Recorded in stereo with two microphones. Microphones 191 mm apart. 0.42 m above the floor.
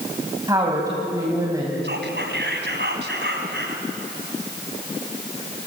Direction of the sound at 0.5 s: 20° right (ahead or behind).